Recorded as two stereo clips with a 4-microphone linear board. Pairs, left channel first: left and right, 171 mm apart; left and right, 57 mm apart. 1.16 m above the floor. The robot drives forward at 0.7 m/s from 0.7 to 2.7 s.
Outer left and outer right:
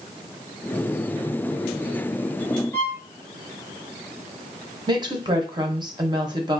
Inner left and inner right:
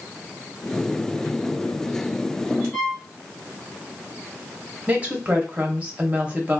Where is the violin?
10° left (ahead or behind), 0.9 m.